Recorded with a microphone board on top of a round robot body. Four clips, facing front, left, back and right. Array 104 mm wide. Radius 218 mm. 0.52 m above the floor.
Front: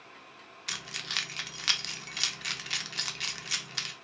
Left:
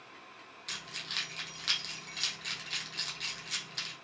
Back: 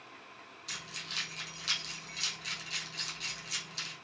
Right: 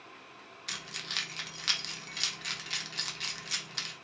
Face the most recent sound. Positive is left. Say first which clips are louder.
# right 2 dB, front 6 dB
turn(degrees=-15)